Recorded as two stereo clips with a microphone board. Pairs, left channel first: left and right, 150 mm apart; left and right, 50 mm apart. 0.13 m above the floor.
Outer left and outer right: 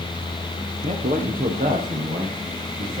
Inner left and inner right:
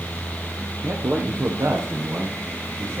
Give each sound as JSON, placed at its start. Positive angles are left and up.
{"t": 0.8, "sound": "a man speaking", "side_deg": -65, "distance_m": 4.0}